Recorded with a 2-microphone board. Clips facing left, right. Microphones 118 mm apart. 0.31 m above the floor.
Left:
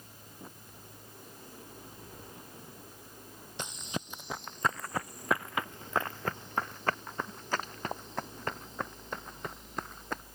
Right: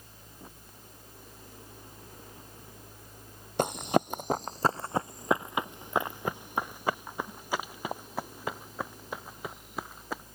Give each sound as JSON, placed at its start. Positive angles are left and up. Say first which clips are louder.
{"t": 3.6, "sound": "running footsteps", "louder": "right 13 dB", "side_deg": -55}